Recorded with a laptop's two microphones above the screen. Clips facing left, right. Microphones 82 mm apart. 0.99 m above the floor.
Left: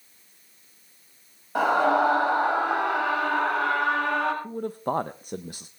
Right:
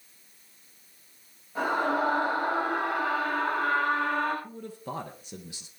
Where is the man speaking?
45° left (ahead or behind), 0.5 m.